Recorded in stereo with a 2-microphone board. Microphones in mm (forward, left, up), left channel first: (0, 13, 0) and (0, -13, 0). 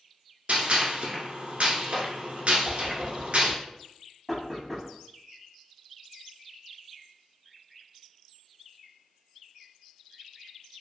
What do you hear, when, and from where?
0.5 s a gunshot: 55° right (ahead or behind), 1.0 m
2.6 s a whoosh: 30° left (ahead or behind), 1.1 m
4.3 s knocking: 10° left (ahead or behind), 0.9 m